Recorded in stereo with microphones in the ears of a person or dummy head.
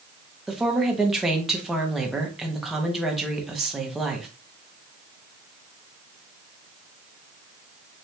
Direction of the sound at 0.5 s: Centre (ahead or behind).